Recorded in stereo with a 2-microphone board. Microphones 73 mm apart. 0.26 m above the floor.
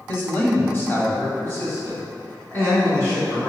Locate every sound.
0.1 s a man speaking: 30° left (ahead or behind), 1.4 m; by 3.5 s 25° left (ahead or behind), 2.5 m